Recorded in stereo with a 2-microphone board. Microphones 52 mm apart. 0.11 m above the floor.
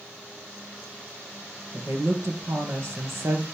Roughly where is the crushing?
No crushing in this recording.